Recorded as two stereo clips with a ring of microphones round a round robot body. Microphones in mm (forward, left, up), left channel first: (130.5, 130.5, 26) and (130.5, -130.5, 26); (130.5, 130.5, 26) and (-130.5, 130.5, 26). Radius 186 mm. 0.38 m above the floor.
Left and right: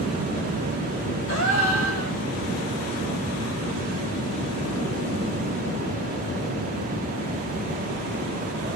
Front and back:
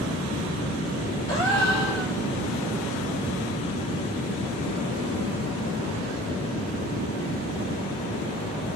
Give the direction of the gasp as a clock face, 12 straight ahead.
10 o'clock.